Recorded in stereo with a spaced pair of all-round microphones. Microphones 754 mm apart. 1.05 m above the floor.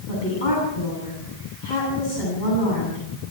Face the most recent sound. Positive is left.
turn(degrees=80)